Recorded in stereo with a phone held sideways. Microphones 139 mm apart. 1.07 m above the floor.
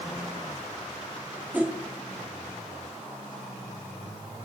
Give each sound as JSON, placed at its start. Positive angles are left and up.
{"t": 1.5, "sound": "a whoosh", "side_deg": -10, "distance_m": 0.7}